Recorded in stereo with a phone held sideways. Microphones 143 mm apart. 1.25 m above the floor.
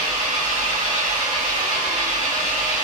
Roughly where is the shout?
No shout in this recording.